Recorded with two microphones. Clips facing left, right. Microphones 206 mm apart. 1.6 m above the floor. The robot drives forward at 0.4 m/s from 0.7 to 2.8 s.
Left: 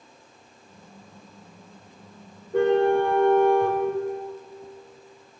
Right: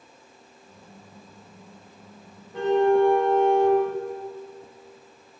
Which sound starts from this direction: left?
A car horn, at 2.5 s.